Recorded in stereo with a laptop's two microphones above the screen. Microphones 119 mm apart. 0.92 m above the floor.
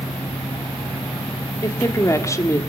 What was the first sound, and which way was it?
A fan, 25° left (ahead or behind).